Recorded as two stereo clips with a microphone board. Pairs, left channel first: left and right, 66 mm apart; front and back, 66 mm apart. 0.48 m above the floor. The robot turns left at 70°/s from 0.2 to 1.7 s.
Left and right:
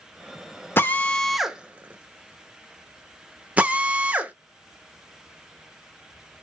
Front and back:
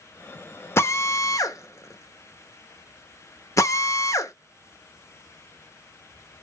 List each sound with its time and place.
0.8 s a drill: 40° left, 0.6 m; by 4.3 s 25° right, 0.6 m